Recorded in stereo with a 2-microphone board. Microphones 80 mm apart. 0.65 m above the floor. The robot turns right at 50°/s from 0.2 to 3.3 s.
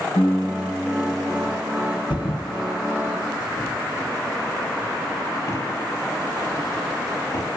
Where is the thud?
80° left, 4.5 m; by 7.5 s 40° left (ahead or behind), 4.5 m.